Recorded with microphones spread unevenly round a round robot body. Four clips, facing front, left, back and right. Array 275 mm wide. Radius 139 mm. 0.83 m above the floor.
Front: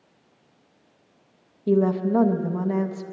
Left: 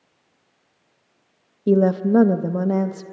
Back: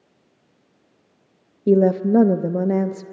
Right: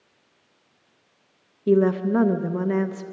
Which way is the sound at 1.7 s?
140° left.